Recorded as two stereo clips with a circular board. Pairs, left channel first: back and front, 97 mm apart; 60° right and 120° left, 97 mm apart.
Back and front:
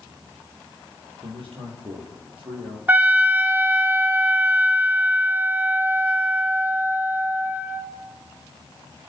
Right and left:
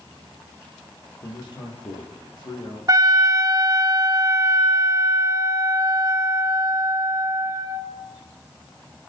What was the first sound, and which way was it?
A man speaking, 25° right.